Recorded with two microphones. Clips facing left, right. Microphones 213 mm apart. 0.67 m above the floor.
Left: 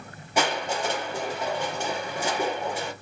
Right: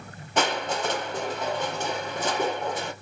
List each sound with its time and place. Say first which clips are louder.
0.4 s crushing: even; 10° left (ahead or behind), 1.0 m